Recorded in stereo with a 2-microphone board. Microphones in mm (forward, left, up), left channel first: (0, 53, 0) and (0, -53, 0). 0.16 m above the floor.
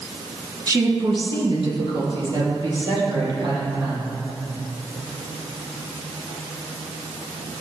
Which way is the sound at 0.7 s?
35° right (ahead or behind).